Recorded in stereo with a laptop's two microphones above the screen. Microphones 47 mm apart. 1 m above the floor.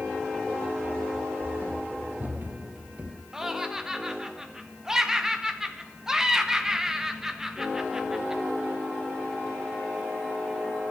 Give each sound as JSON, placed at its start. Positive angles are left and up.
{"t": 0.8, "sound": "running footsteps", "side_deg": -40, "distance_m": 3.5}
{"t": 3.3, "sound": "laughter", "side_deg": -10, "distance_m": 0.7}